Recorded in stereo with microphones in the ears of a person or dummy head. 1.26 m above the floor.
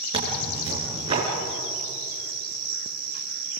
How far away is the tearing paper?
About 5 m.